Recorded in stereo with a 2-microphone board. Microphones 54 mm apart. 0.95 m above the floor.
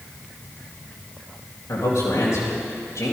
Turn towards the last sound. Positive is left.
turn(degrees=80)